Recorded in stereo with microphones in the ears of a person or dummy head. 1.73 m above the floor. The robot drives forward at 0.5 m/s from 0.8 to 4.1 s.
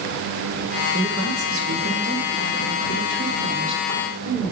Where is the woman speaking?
60° right (ahead or behind), 1.3 m; by 4.5 s 45° right (ahead or behind), 1.7 m.